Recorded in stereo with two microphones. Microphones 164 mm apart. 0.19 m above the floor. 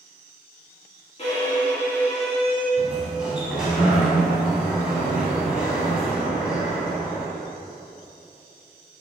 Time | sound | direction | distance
1.2 | a violin | 40° left (ahead or behind) | 1.2 m
2.8 | a sliding door | 5° right (ahead or behind) | 0.8 m